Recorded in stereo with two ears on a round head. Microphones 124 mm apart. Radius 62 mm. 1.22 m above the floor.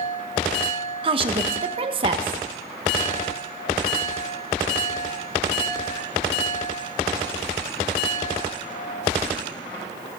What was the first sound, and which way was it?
A woman speaking, 40° right (ahead or behind).